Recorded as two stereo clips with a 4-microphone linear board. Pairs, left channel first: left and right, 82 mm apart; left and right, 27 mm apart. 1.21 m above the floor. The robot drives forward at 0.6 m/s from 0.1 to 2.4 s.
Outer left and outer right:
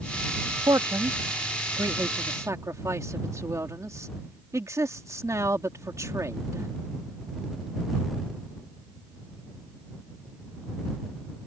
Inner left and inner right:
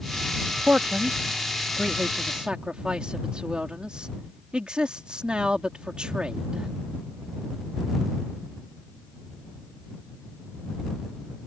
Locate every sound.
0.6 s a man speaking: 60° right (ahead or behind); by 6.7 s 45° right (ahead or behind)